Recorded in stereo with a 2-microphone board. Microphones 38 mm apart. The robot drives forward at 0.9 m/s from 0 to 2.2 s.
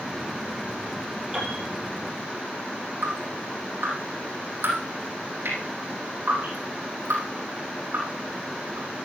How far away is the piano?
About 9 m.